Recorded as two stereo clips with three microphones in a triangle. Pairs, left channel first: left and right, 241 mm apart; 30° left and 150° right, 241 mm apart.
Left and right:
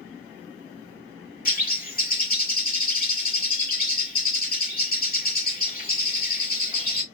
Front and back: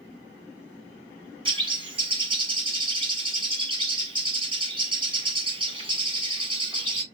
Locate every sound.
1.4 s a bird: 145° left, 1.1 m